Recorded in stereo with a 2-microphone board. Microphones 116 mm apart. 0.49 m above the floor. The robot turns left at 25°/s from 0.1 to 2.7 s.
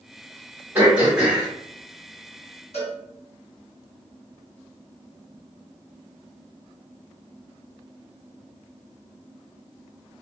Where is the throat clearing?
20° right (ahead or behind), 1.7 m; by 1.5 s 5° right (ahead or behind), 1.7 m.